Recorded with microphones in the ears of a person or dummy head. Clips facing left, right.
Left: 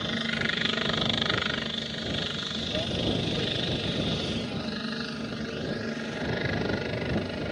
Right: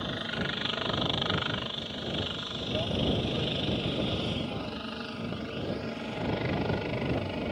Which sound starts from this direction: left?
A helicopter, at 0.0 s.